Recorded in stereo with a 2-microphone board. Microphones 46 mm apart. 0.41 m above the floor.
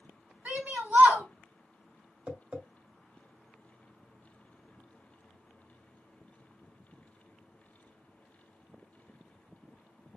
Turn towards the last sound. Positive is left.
turn(degrees=-25)  # may be behind; listen again after turning